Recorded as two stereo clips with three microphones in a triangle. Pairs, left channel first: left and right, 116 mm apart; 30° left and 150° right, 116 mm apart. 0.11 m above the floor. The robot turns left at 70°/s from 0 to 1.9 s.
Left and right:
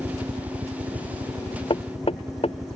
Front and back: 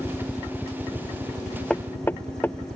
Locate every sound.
0.0 s a helicopter: 25° right; by 2.8 s 160° right
1.7 s knocking: 110° left; by 2.5 s 100° left